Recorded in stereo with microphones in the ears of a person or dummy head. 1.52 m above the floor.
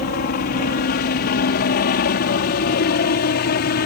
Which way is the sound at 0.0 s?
50° left (ahead or behind).